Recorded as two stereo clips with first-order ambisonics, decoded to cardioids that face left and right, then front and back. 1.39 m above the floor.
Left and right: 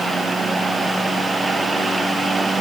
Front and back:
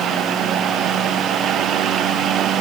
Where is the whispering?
I don't hear whispering.